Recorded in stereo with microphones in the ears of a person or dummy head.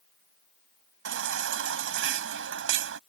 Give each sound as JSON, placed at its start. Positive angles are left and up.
{"t": 1.1, "sound": "a baby crying", "side_deg": -60}